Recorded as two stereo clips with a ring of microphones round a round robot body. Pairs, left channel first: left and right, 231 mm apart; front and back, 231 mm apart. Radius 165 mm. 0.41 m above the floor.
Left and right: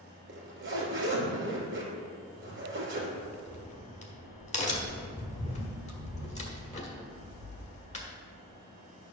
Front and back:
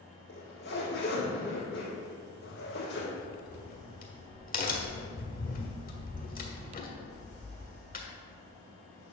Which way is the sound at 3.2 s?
40° left.